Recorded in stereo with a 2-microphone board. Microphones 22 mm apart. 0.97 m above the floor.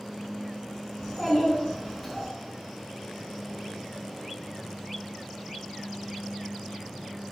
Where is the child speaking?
10° left (ahead or behind), 1.8 m.